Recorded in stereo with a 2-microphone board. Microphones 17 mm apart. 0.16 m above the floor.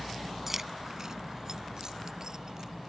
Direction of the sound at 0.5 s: 15° right (ahead or behind).